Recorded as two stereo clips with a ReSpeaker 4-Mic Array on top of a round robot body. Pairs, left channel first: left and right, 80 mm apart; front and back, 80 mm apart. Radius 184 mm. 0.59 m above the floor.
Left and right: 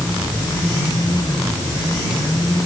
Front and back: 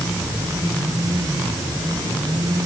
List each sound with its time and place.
Only background noise.